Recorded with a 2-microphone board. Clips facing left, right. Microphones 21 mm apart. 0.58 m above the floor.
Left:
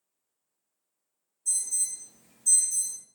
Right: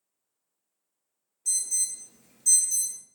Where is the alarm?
50° right (ahead or behind), 1.1 m.